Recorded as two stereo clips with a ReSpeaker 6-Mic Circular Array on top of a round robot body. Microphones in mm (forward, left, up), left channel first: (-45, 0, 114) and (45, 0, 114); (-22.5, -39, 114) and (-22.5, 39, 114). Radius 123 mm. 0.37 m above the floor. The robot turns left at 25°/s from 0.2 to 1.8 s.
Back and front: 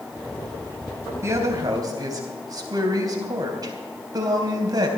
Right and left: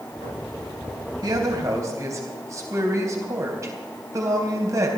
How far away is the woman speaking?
About 3.5 m.